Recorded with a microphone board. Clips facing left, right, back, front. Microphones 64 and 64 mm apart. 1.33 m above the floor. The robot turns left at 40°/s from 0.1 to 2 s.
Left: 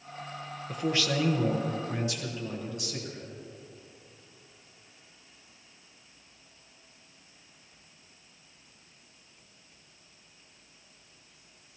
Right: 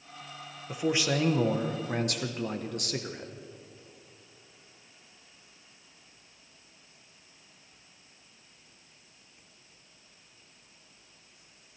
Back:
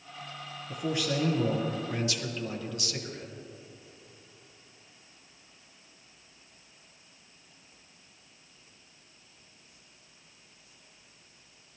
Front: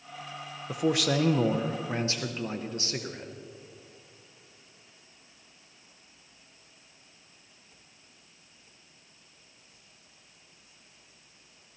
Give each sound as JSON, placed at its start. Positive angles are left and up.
{"t": 0.7, "sound": "a man speaking", "azimuth_deg": -5, "distance_m": 0.9}